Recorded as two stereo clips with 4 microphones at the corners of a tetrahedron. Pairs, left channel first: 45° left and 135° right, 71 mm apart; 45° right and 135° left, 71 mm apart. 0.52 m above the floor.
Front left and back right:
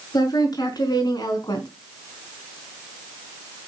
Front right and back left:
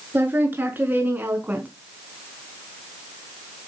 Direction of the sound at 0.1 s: 70° left.